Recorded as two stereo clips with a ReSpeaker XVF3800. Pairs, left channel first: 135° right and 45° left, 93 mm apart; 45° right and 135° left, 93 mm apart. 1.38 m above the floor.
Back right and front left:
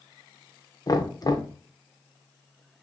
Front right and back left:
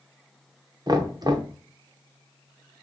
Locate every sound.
0.9 s knocking: 175° left, 0.6 m